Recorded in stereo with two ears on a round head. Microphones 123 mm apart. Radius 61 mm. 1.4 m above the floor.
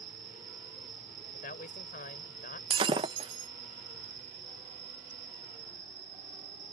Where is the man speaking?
65° left (ahead or behind).